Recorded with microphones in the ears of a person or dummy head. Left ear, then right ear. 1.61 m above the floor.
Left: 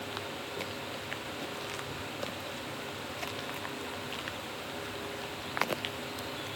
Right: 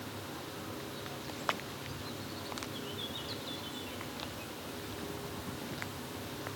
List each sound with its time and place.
Only background noise.